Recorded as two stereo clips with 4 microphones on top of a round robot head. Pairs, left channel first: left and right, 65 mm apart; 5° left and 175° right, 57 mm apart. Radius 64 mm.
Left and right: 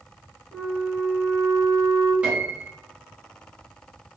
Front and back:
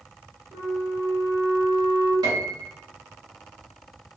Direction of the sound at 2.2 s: 165° right.